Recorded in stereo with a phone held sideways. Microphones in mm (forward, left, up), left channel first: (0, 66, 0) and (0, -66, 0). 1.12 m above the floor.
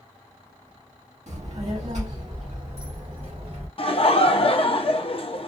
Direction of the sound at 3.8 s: 45° left (ahead or behind).